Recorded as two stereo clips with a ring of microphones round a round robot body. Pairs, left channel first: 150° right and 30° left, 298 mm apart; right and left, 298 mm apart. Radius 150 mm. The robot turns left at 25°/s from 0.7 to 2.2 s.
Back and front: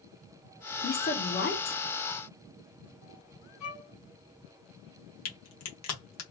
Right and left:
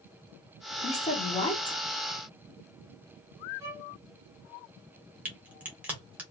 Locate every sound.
0.8 s a woman speaking: 130° right, 0.8 m; by 1.8 s 155° right, 0.8 m
3.6 s a violin: 170° left, 1.8 m
5.2 s a crack: 175° left, 1.2 m